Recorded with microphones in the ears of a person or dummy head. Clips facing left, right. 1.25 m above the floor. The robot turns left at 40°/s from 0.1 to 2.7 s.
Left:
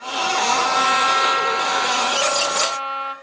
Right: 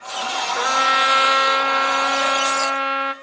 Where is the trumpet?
25° right, 0.9 m; by 3.1 s 110° right, 0.9 m.